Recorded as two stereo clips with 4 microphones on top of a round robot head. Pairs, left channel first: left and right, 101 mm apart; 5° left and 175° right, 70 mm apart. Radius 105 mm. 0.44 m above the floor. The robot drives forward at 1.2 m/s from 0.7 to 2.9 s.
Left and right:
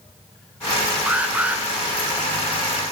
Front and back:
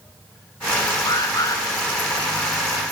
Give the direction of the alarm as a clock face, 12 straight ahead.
12 o'clock.